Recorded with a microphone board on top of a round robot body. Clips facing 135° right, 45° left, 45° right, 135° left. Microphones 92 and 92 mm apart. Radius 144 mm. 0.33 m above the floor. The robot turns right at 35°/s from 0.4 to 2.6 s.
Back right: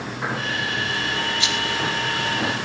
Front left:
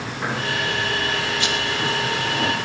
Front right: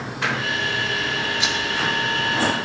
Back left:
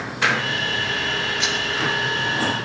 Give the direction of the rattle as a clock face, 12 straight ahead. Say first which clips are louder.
Front left 2 dB, even; 11 o'clock.